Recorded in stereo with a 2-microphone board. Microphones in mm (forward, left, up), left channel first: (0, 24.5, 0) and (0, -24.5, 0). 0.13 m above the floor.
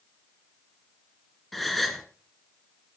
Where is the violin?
No violin in this recording.